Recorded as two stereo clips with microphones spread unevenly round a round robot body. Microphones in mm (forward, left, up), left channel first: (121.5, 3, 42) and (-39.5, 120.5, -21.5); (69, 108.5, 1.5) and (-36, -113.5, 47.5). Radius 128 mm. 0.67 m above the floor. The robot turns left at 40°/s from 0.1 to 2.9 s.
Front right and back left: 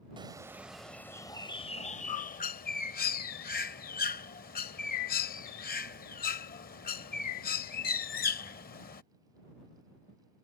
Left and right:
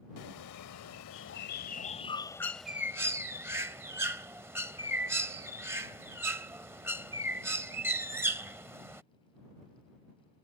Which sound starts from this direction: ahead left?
A bird, at 0.2 s.